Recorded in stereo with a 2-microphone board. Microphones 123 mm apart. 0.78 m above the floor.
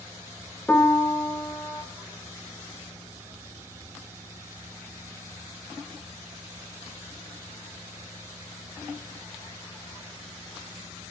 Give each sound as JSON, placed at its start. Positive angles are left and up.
{"t": 0.7, "sound": "a piano", "side_deg": 15, "distance_m": 0.9}